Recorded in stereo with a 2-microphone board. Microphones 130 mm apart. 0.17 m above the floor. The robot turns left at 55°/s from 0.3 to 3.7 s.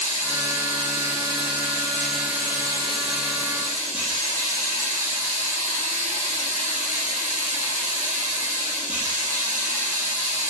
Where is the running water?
100° left, 3 m; by 10.5 s 85° right, 3 m.